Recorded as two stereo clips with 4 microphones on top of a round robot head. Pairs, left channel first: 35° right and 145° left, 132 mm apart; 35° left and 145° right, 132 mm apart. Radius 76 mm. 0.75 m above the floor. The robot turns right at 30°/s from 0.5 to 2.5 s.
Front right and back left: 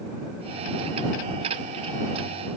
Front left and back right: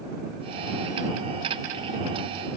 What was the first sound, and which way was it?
Only background noise.